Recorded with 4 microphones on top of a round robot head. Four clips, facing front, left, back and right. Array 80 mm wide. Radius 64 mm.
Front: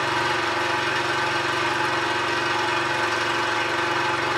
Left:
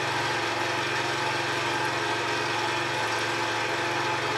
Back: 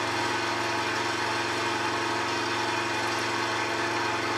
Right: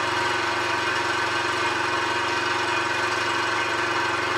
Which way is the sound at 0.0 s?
25° right.